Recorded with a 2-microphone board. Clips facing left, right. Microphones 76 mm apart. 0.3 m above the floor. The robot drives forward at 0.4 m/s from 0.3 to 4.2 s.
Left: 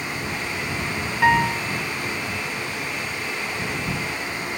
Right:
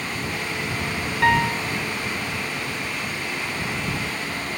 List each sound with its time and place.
1.2 s a piano: 5° left (ahead or behind)